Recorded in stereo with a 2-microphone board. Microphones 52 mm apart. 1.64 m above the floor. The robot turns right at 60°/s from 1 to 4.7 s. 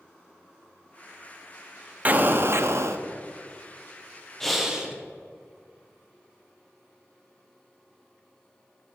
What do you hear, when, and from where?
2.0 s an explosion: 145° right, 0.6 m; by 3.0 s 90° right, 0.6 m
4.4 s breathing: 5° left (ahead or behind), 1.1 m; by 5.0 s 10° right (ahead or behind), 1.1 m